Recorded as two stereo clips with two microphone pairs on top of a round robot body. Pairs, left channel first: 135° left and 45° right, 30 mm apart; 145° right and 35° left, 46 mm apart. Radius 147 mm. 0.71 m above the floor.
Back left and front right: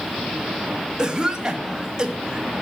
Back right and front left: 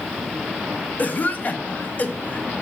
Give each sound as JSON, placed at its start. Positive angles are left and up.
{"t": 1.0, "sound": "a cough", "azimuth_deg": -110, "distance_m": 1.6}